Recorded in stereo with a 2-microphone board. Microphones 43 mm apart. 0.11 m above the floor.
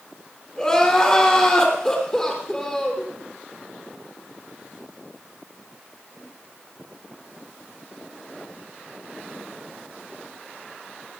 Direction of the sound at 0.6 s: 15° left (ahead or behind).